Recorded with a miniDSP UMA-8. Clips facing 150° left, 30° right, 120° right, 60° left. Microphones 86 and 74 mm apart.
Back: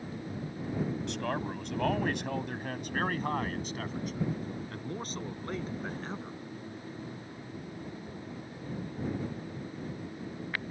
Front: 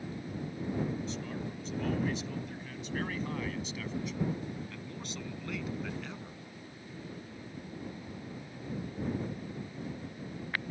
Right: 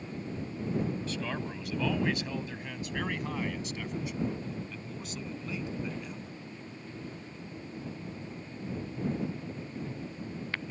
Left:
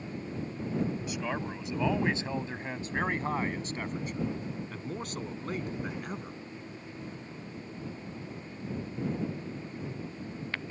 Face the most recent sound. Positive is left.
turn(degrees=95)